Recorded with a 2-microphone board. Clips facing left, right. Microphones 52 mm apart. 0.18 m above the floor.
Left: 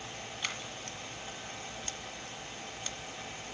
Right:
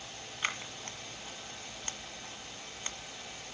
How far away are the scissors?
About 1.7 m.